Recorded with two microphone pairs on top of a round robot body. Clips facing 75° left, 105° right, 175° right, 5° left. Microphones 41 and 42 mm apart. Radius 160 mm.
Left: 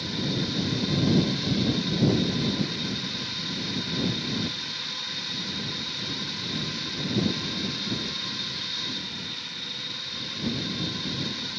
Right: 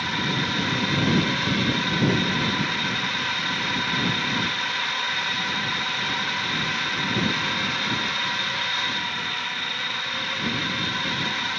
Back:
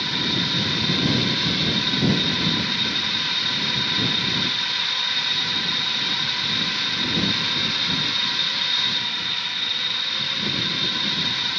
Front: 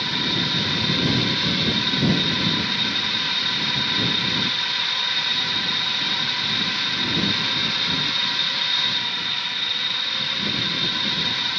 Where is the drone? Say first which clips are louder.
Right 5 dB, even; 80° right.